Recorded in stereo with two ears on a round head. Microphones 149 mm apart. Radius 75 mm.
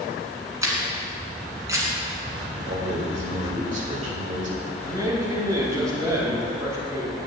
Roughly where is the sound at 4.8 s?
Right.